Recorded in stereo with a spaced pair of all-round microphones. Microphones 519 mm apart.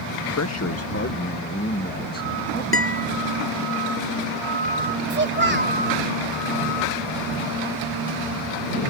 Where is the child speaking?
20° right (ahead or behind).